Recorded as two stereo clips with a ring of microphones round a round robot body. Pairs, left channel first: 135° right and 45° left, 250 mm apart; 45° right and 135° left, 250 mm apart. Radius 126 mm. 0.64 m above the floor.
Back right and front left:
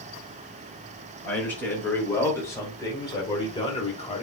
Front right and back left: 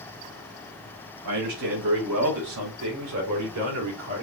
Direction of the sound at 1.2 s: 140° left.